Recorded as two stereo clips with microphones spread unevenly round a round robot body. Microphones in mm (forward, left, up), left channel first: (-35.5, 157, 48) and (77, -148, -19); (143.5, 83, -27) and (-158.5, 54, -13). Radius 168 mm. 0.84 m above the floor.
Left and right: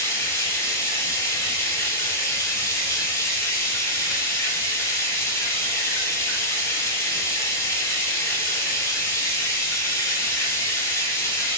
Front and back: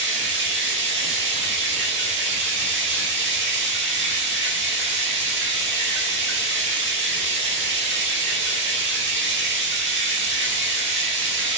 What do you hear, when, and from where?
0.0 s running water: 155° right, 0.7 m